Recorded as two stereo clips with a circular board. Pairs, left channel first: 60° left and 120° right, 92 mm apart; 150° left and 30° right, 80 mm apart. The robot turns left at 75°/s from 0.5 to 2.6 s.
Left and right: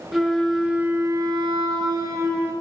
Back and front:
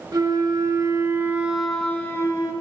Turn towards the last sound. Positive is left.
turn(degrees=170)